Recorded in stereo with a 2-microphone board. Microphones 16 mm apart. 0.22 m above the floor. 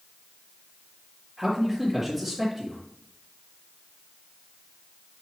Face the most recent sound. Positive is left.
turn(degrees=-15)  # may be behind; listen again after turning